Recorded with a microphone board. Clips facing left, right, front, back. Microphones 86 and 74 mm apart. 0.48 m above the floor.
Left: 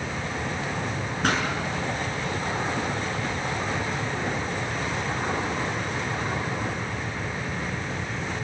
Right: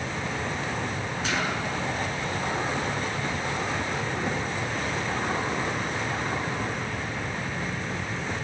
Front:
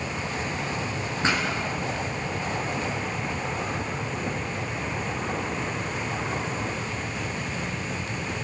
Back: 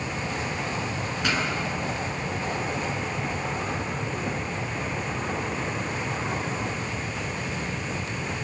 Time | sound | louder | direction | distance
1.2 | a pop | left 5 dB, front 2 dB | 60° left | 6.5 m